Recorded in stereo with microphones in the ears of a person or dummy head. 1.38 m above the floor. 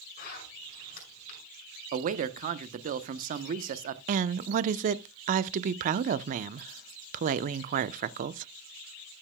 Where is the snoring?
No snoring in this recording.